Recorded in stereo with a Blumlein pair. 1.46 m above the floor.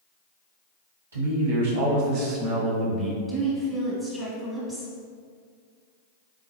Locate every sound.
1.1 s a man speaking: 70° right, 1.3 m; by 3.2 s 10° right, 1.0 m
3.3 s a woman speaking: 5° left, 1.3 m